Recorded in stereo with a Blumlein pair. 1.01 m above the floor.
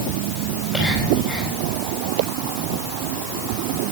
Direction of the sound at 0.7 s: Straight ahead.